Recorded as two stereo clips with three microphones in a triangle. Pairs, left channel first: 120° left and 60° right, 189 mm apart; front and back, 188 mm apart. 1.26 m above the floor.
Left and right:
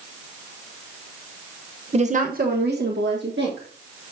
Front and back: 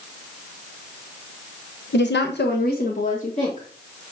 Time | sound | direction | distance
1.9 | a woman speaking | 5° right | 1.1 m